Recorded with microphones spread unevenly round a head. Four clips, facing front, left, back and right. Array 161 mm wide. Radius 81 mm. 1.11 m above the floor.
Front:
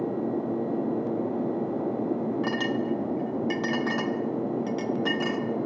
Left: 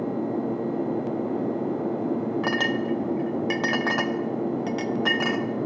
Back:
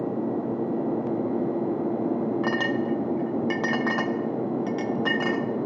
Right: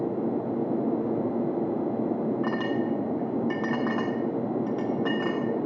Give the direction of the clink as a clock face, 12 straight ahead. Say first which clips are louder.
Left 2 dB, back 2 dB; 8 o'clock.